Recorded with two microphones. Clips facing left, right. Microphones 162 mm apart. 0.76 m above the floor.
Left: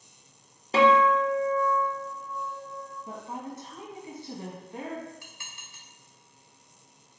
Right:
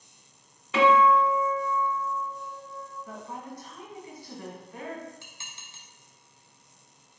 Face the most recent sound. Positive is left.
turn(degrees=-25)  # may be behind; listen again after turning